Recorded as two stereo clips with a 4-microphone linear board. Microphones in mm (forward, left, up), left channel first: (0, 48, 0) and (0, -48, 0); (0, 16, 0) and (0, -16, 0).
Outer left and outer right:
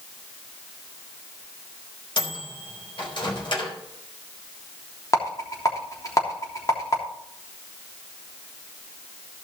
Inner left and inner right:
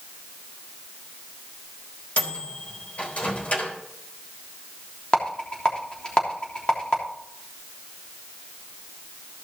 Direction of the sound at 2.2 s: 55° left (ahead or behind).